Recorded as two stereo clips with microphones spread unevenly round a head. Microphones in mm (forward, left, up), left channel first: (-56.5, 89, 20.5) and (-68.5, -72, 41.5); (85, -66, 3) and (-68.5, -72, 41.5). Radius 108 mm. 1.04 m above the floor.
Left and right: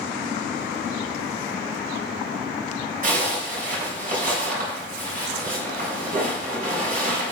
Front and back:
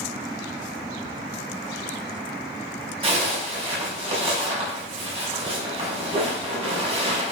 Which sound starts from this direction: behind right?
A zipper, at 3.0 s.